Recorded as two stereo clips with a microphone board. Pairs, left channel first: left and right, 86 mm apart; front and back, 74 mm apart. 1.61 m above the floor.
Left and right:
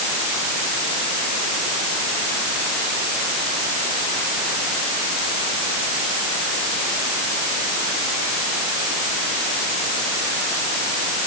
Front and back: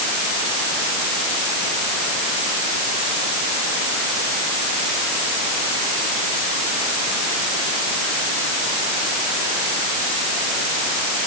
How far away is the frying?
No frying in this recording.